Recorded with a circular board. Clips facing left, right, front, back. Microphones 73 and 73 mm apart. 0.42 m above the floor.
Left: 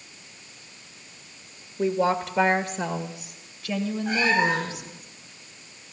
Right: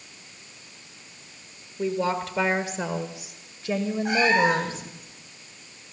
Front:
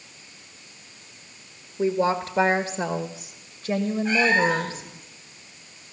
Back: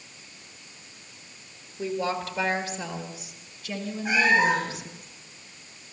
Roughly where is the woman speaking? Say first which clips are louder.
Left 3 dB, front 6 dB; ahead left.